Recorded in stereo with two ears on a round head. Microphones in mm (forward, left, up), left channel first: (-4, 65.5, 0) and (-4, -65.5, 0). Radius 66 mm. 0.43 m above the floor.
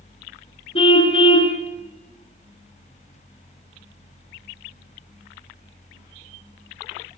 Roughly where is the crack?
No crack in this recording.